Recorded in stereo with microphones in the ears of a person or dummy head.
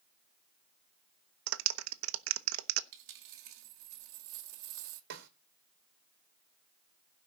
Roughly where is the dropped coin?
Right.